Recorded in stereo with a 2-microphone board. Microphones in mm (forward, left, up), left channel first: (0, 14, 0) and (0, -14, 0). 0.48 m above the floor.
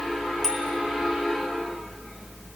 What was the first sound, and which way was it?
A bicycle bell, centre (ahead or behind).